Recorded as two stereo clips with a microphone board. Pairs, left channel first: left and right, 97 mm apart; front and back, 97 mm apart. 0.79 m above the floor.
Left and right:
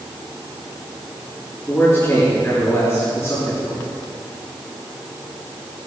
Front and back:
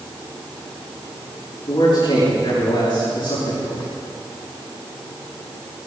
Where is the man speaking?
30° left, 7.5 m.